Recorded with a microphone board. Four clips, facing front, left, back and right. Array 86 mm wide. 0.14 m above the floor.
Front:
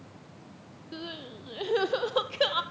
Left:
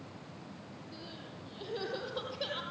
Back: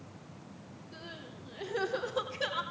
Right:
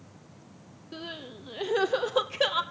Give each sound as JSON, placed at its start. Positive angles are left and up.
{"t": 0.9, "sound": "crying", "azimuth_deg": -50, "distance_m": 1.6}